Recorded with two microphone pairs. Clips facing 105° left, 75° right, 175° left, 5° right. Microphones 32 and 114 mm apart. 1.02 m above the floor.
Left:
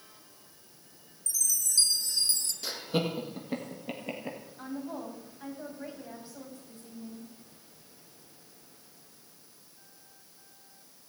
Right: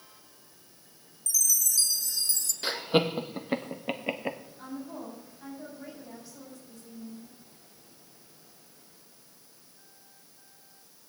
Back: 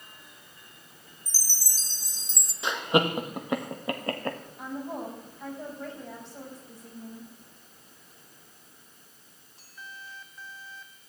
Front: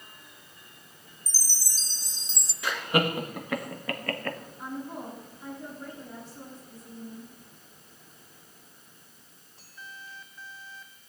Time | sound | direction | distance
1.3 | a chime | 150° left | 1.0 m
2.6 | laughter | 125° right | 1.7 m
4.6 | a woman speaking | 165° left | 6 m